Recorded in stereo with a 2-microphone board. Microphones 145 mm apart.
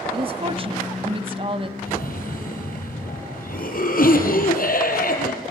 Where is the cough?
70° left (ahead or behind), 5.5 m.